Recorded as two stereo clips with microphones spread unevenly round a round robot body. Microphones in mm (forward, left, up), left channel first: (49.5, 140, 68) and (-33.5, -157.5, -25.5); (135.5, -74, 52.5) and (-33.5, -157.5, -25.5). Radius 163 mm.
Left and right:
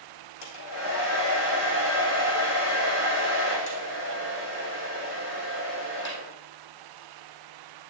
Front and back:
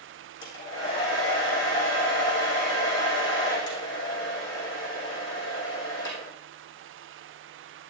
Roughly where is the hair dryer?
Ahead left.